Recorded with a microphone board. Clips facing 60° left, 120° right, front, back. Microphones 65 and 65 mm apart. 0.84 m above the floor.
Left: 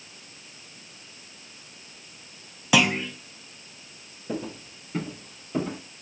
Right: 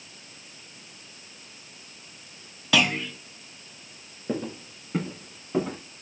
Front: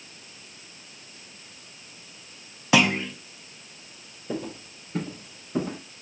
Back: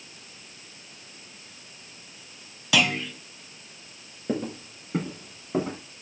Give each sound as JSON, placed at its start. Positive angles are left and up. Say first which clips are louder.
{"t": 2.7, "sound": "a clunk", "louder": "left 2 dB, front 3 dB", "azimuth_deg": 0, "distance_m": 0.6}
{"t": 4.3, "sound": "footsteps", "louder": "right 2 dB, back 3 dB", "azimuth_deg": -175, "distance_m": 2.5}